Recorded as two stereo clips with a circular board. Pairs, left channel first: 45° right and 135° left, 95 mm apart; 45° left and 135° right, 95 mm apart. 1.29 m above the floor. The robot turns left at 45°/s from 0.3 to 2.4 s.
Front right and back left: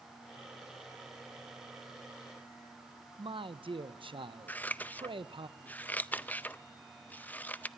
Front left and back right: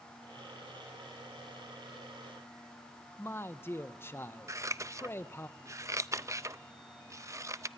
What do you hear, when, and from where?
3.2 s a man speaking: 110° left, 0.9 m
4.5 s scissors: 105° right, 0.5 m